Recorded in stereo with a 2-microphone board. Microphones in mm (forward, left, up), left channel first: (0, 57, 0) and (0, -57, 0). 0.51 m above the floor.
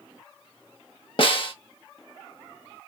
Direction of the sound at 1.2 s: 50° left (ahead or behind).